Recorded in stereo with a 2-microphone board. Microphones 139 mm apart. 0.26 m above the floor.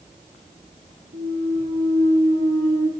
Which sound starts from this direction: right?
A clunk, at 1.1 s.